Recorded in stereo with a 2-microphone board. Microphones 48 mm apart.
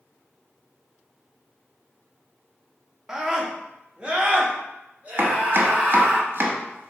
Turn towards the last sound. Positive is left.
turn(degrees=-50)  # may be behind; listen again after turning